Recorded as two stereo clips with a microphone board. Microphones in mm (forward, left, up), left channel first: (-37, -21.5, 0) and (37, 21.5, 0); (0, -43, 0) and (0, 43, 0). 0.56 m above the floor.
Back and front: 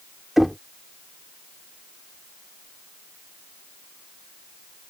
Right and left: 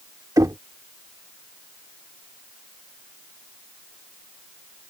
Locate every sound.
0.4 s knocking: 115° left